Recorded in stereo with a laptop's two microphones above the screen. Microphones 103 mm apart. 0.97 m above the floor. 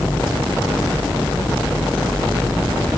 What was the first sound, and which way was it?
Only background noise.